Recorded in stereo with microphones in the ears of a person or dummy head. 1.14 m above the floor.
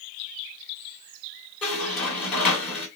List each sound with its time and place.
1.6 s a squeak: 10° left (ahead or behind), 1.4 m